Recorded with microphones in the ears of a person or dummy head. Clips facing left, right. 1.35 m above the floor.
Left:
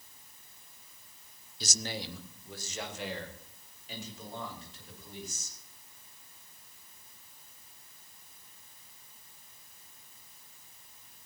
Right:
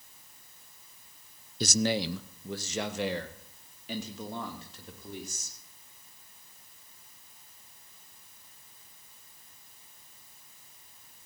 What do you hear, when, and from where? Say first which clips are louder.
1.6 s a man speaking: right 11 dB; 45° right (ahead or behind), 0.6 m; by 5.6 s 55° right (ahead or behind), 3.5 m